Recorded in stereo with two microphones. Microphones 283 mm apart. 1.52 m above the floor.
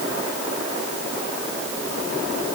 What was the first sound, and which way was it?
Only background noise.